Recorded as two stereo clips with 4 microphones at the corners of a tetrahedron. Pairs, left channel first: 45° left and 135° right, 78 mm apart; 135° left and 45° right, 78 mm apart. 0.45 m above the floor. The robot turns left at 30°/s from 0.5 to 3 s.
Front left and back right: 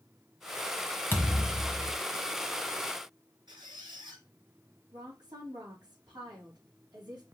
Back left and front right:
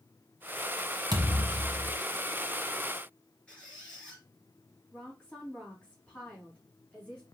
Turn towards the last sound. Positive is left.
turn(degrees=-155)